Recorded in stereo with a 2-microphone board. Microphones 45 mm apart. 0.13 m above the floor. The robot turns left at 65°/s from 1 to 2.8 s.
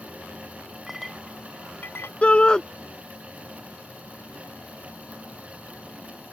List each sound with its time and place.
0.9 s a clink: 10° right (ahead or behind); by 2.1 s 65° left (ahead or behind)
2.2 s a shout: 30° left (ahead or behind); by 2.6 s 20° left (ahead or behind)